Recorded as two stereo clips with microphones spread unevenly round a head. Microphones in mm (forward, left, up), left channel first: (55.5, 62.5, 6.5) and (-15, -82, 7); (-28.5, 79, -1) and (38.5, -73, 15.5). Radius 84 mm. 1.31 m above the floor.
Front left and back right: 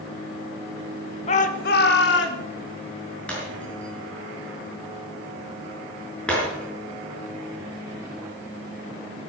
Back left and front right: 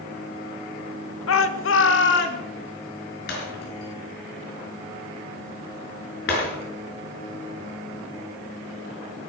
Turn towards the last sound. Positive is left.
turn(degrees=145)